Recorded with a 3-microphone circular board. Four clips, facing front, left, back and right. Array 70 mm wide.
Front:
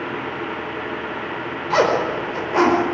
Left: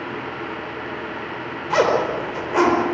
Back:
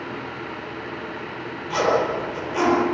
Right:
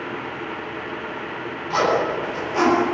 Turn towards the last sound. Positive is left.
turn(degrees=40)